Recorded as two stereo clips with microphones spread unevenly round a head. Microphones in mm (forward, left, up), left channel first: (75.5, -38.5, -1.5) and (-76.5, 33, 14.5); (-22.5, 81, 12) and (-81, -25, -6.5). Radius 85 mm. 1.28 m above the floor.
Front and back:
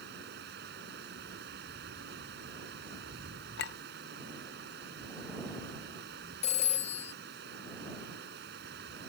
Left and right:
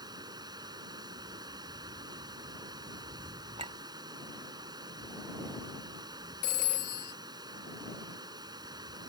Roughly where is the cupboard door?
I don't hear a cupboard door.